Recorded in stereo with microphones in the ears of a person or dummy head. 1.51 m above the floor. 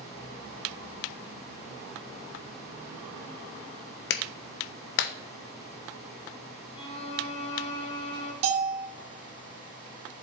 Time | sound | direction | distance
4.1 | a clap | 65° left (ahead or behind) | 0.6 m
6.8 | a violin | 35° left (ahead or behind) | 1.5 m
8.4 | a bell | 35° right (ahead or behind) | 1.6 m